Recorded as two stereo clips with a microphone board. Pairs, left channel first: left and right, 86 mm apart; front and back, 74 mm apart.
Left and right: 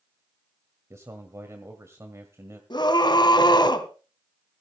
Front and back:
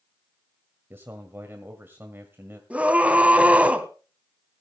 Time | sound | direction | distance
0.9 | a man speaking | 130° right | 1.8 m
2.7 | a scream | 110° left | 2.5 m